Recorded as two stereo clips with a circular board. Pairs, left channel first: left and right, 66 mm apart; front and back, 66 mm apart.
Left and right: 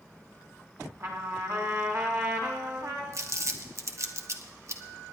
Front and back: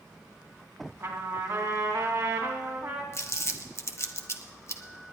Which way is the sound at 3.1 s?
45° right.